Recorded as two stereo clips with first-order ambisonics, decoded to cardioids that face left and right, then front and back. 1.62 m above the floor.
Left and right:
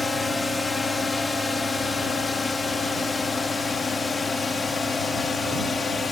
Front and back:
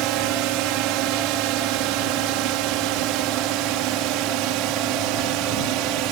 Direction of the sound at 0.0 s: 165° left.